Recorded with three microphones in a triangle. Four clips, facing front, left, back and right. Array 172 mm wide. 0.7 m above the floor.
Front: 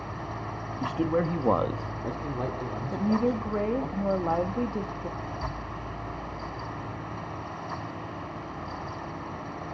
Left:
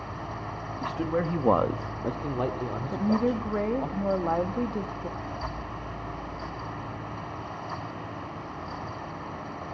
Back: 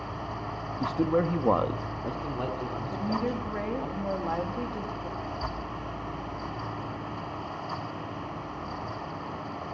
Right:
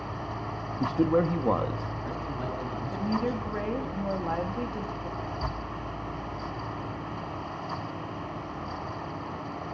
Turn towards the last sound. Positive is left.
turn(degrees=-95)